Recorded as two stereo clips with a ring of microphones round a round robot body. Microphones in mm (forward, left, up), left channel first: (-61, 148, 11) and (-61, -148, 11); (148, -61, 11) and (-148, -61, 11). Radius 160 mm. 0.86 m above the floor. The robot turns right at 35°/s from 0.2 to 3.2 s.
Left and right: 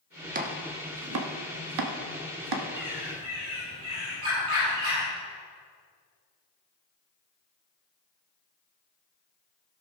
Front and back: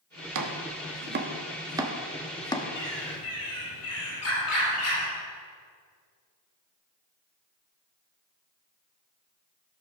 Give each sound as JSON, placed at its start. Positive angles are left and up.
{"t": 0.3, "sound": "chopping", "azimuth_deg": -155, "distance_m": 1.2}
{"t": 2.8, "sound": "a bird", "azimuth_deg": -55, "distance_m": 4.0}